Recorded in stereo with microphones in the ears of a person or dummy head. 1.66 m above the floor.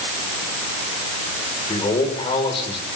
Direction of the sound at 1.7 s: 25° left (ahead or behind).